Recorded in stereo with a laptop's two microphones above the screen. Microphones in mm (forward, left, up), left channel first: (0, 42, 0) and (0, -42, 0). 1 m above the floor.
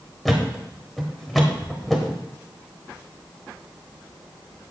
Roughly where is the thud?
Centre.